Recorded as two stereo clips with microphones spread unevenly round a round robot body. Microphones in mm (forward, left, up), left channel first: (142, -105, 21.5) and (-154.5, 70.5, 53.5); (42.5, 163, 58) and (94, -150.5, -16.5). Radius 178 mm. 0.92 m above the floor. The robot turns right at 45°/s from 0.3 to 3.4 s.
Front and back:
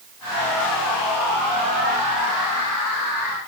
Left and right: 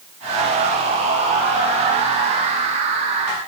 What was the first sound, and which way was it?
Only background noise.